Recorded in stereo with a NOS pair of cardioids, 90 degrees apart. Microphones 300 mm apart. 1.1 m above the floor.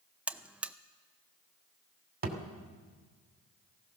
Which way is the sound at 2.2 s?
35° right.